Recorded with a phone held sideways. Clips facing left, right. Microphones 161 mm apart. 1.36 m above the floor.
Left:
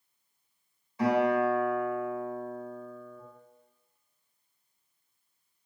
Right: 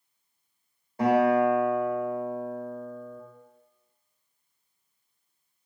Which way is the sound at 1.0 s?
50° right (ahead or behind).